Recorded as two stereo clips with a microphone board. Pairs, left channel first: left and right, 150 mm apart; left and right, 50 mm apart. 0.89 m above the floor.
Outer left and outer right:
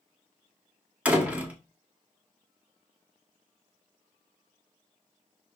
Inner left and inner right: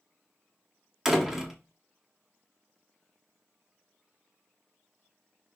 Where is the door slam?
10° right (ahead or behind), 1.7 m.